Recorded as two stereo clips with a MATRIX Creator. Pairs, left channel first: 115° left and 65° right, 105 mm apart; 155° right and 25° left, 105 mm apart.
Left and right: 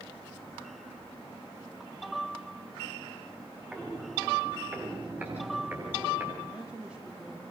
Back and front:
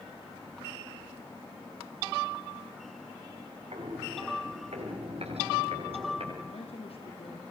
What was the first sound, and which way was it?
Footsteps, 10° left.